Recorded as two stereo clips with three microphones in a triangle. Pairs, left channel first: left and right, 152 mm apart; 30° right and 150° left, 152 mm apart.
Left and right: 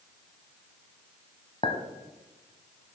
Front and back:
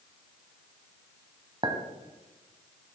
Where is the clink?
110° left, 1.0 m.